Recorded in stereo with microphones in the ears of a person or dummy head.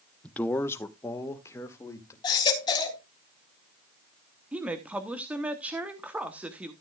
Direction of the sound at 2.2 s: 25° left (ahead or behind).